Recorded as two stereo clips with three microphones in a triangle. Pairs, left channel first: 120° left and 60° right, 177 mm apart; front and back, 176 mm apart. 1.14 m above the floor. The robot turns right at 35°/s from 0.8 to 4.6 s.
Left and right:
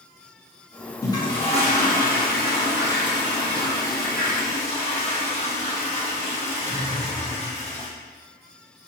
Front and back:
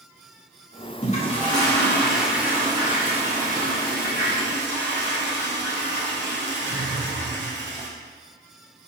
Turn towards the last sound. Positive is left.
turn(degrees=175)